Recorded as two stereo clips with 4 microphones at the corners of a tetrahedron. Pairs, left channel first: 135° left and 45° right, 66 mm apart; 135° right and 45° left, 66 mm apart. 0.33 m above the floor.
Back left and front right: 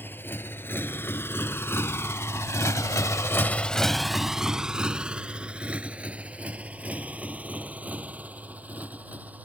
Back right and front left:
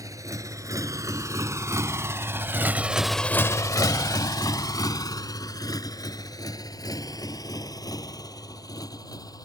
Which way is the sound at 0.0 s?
80° left.